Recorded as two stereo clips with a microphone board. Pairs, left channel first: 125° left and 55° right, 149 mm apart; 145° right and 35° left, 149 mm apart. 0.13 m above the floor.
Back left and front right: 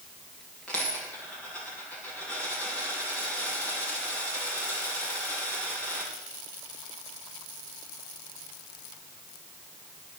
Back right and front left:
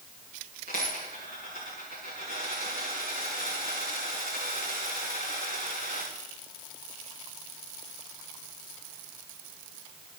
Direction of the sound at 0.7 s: 40° left.